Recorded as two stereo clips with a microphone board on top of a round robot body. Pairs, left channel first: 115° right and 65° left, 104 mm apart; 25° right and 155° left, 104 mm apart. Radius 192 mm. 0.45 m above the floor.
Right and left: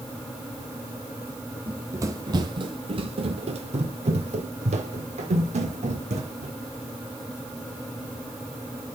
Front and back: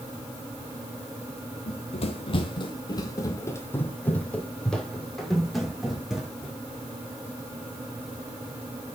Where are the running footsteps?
Straight ahead, 1.3 m; by 6.5 s 75° left, 3 m.